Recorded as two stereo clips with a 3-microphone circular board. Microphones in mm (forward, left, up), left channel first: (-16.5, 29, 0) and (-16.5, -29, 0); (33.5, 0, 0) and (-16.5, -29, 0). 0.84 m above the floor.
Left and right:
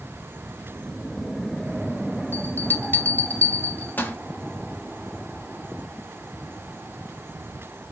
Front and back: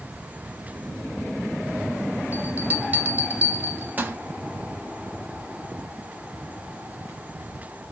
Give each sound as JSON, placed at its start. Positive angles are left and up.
{"t": 2.3, "sound": "a bell", "azimuth_deg": 150, "distance_m": 0.6}